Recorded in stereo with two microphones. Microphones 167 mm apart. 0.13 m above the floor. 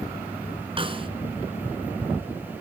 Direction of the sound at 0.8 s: 30° right (ahead or behind).